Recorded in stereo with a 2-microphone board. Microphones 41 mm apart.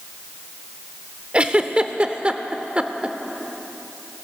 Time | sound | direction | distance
1.3 | a giggle | 25° right (ahead or behind) | 0.7 m